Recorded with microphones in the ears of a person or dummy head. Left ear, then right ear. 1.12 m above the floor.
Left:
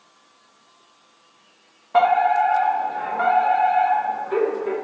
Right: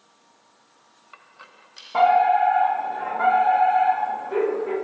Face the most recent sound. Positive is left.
turn(degrees=30)  # may be behind; listen again after turning